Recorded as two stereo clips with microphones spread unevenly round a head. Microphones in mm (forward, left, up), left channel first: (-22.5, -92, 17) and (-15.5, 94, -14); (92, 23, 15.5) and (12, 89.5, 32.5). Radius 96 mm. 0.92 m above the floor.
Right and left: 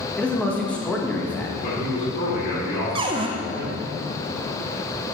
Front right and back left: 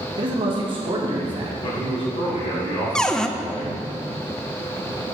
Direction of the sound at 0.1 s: Straight behind.